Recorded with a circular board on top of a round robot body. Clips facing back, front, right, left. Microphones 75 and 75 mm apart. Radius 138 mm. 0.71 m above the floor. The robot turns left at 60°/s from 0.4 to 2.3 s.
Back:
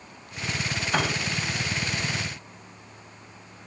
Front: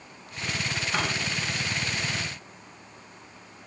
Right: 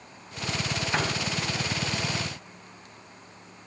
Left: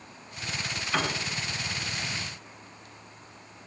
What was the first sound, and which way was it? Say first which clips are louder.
A piano: back 4 dB, even; 160° right.